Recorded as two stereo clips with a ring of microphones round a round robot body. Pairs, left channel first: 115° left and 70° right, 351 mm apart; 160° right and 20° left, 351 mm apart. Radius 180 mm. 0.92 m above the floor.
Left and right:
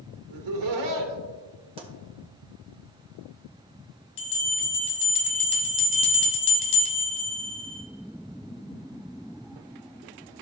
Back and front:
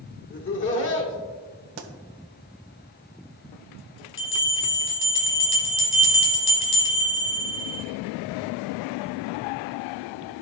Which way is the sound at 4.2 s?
145° left.